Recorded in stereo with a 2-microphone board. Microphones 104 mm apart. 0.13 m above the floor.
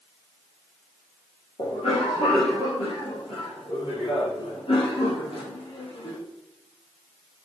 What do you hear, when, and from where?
1.6 s a cough: 65° left (ahead or behind), 4 m